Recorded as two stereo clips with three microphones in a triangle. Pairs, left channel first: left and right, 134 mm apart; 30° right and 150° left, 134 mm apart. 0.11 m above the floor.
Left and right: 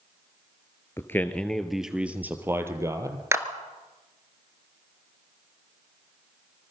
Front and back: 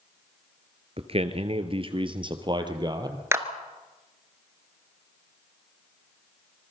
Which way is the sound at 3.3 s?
150° right.